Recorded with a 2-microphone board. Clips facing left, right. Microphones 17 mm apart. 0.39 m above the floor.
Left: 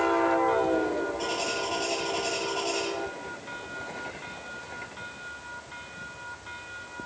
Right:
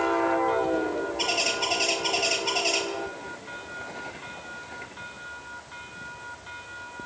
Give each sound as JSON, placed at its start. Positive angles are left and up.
{"t": 1.2, "sound": "a bird", "side_deg": -50, "distance_m": 4.5}